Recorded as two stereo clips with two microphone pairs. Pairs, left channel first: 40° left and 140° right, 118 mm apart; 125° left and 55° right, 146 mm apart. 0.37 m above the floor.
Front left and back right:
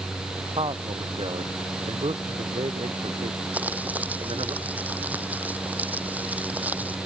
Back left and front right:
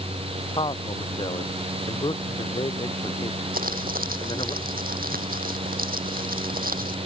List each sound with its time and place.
0.6 s a man speaking: straight behind
3.5 s crumpling: 60° right